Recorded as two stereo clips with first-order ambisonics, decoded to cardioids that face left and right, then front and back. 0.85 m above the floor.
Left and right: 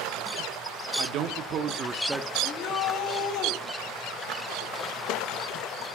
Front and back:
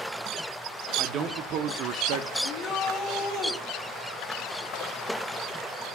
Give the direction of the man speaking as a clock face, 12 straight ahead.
4 o'clock.